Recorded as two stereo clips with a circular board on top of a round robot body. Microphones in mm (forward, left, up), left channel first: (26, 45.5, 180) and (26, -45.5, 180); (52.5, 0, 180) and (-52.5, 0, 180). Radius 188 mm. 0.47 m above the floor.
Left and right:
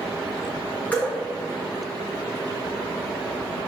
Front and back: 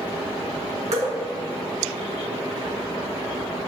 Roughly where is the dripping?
Behind.